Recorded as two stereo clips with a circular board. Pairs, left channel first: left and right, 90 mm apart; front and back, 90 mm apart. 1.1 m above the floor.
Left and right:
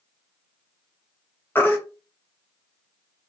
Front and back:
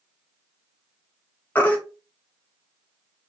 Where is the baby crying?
50° left, 0.7 m.